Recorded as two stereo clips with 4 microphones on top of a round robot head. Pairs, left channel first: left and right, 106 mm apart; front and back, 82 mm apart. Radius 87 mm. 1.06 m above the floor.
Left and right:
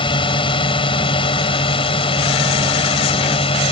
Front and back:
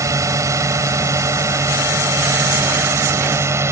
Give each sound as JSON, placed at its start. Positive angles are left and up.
{"t": 0.0, "sound": "a drone", "azimuth_deg": 130}